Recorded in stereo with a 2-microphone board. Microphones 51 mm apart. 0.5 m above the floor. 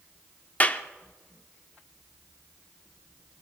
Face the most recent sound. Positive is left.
turn(degrees=30)  # may be behind; listen again after turning